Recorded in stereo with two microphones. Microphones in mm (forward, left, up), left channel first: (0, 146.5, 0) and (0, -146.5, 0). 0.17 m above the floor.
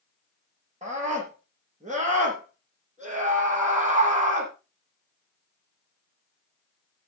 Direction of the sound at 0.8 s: 25° right (ahead or behind).